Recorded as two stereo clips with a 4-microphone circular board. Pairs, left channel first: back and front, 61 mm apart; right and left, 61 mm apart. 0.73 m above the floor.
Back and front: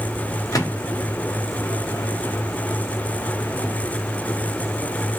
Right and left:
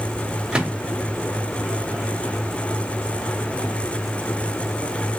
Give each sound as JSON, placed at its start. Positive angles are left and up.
{"t": 0.5, "sound": "a microwave", "azimuth_deg": 165, "distance_m": 0.8}